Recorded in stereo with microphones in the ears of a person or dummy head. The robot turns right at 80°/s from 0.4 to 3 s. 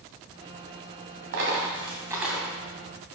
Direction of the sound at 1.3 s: 65° right (ahead or behind).